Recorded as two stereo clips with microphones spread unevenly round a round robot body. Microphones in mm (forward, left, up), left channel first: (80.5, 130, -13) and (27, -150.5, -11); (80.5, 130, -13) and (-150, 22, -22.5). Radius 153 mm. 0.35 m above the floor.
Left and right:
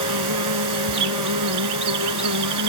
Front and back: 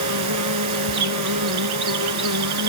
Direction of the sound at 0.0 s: 130° right.